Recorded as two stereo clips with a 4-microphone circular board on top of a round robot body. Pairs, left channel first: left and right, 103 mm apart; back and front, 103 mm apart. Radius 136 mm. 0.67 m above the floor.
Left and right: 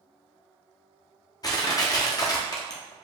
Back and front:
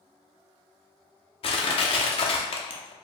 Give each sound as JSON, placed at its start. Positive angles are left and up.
{"t": 1.4, "sound": "crushing", "azimuth_deg": 145, "distance_m": 0.6}